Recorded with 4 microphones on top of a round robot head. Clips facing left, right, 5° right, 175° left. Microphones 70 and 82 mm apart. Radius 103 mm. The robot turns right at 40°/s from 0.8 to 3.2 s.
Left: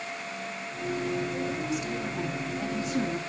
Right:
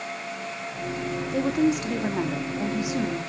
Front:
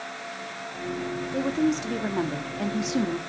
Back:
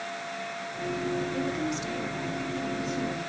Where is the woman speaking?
70° right, 1.8 m; by 3.2 s 5° left, 1.8 m.